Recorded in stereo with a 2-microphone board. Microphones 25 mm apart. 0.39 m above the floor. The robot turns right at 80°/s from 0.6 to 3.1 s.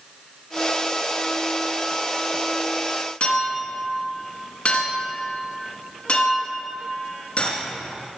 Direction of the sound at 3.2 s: 50° left (ahead or behind).